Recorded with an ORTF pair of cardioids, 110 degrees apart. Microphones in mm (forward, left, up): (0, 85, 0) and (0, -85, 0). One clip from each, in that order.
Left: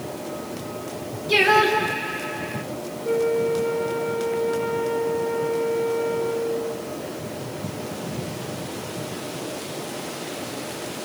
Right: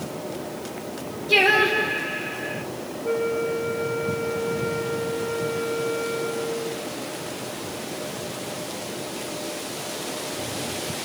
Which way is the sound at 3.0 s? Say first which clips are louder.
Left 3 dB; 25° right.